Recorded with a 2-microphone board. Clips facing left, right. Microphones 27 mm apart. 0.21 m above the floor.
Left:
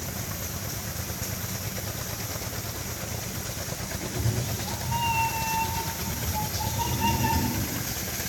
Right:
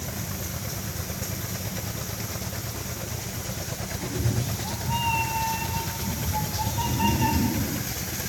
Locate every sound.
4.0 s a cat meowing: 40° right (ahead or behind), 5 m